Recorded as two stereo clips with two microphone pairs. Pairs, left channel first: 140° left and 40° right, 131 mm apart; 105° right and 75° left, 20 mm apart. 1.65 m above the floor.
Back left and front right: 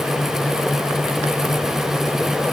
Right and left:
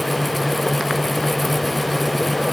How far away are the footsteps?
I don't hear footsteps.